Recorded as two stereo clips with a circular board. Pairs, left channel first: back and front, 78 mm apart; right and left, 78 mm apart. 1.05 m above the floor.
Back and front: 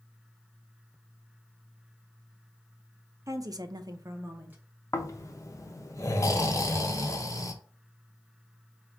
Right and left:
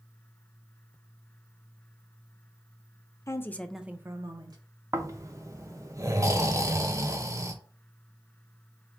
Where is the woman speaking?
45° right, 0.6 m; by 4.6 s 70° left, 0.9 m.